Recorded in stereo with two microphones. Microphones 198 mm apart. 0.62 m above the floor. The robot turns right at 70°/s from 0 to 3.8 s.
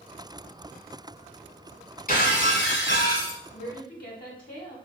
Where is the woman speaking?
40° left (ahead or behind), 1.3 m; by 4.8 s 45° left (ahead or behind), 1.3 m.